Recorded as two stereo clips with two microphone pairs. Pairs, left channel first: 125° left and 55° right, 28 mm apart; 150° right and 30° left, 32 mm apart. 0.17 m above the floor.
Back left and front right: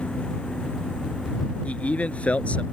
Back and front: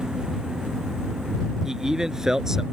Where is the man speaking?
100° left.